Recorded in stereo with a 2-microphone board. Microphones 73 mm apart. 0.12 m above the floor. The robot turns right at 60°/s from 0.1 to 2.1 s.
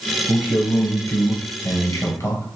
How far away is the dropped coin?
No dropped coin in this recording.